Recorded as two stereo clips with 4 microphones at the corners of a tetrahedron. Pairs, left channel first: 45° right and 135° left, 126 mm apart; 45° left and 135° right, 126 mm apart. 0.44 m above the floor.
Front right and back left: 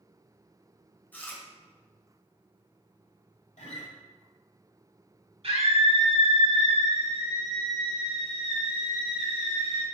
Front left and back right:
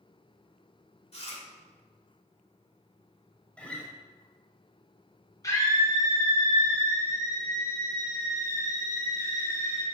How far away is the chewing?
About 1.6 m.